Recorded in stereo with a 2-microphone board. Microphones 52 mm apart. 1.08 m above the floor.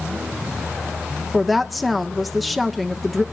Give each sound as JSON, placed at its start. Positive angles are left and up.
{"t": 1.3, "sound": "a woman speaking", "side_deg": 0, "distance_m": 1.2}